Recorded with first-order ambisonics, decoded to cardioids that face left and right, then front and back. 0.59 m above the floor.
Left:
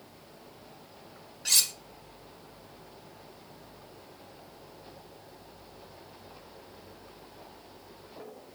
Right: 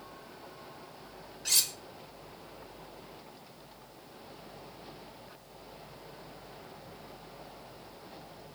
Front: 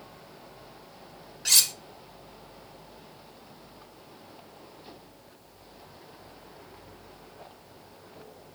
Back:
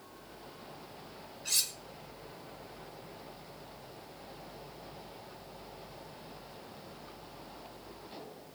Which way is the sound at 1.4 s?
10° left.